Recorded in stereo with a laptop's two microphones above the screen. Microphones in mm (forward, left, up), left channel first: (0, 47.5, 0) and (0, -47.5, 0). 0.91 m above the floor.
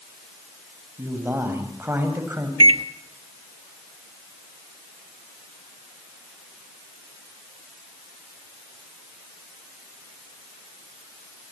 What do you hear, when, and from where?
1.0 s a man speaking: 25° right (ahead or behind), 7 m
2.6 s a microwave: 80° right, 1.0 m